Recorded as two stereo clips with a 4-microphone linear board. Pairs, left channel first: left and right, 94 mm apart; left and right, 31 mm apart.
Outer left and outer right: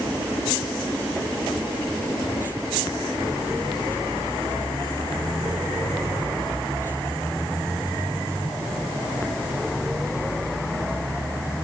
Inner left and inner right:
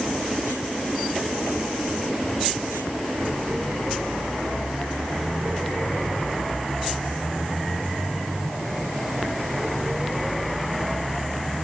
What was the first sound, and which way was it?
Only background noise.